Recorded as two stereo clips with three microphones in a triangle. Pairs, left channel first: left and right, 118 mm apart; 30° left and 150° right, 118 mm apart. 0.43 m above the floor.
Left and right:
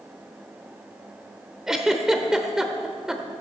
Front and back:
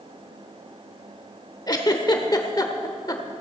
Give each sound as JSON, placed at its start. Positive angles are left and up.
{"t": 1.7, "sound": "a giggle", "azimuth_deg": -5, "distance_m": 1.0}